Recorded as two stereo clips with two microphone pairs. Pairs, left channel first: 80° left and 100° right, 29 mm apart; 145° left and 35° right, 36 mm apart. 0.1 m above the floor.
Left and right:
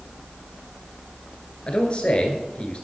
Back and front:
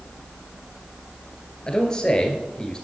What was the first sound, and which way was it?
A man speaking, 95° left.